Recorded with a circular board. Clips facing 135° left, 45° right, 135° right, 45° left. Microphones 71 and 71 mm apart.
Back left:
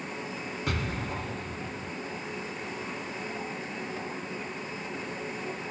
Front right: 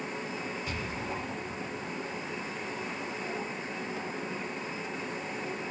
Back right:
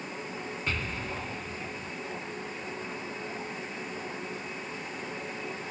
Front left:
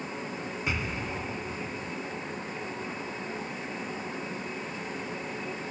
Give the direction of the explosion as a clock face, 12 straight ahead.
8 o'clock.